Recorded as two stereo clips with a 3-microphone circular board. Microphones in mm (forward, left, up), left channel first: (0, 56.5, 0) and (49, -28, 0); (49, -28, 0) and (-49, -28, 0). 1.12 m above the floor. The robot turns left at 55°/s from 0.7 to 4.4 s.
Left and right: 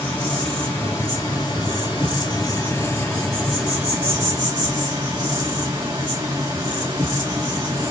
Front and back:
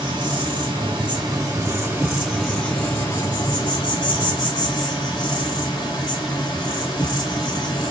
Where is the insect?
175° right, 2 m; by 7.9 s 20° right, 2 m.